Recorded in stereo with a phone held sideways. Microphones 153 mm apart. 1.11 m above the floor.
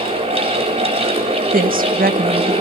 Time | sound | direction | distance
0.0 | a fan | 40° right (ahead or behind) | 4 m
1.5 | a woman speaking | 70° right (ahead or behind) | 1.2 m